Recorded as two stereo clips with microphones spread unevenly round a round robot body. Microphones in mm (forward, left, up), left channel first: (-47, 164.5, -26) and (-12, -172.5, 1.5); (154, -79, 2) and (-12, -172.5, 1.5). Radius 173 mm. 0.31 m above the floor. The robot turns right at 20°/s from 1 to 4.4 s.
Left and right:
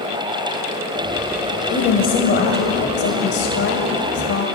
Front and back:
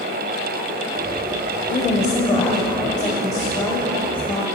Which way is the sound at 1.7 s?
50° left.